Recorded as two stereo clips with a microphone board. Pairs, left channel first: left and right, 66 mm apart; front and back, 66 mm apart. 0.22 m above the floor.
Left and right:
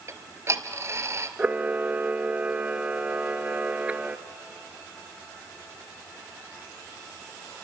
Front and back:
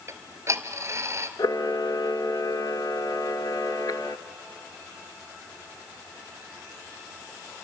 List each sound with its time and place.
0.1 s ticking: 135° right, 1.0 m
1.4 s a camera shutter: 20° right, 0.7 m